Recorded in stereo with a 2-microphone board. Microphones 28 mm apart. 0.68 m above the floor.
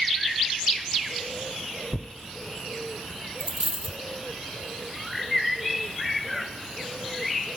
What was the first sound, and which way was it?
Tearing paper, 70° left (ahead or behind).